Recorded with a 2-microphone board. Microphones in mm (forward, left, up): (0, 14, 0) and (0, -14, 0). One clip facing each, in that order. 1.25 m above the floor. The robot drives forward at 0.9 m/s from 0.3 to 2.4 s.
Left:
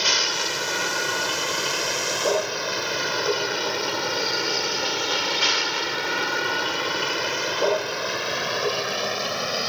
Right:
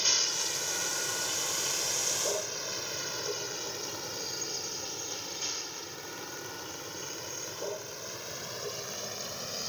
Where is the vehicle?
45° left (ahead or behind); by 9.7 s 55° left (ahead or behind).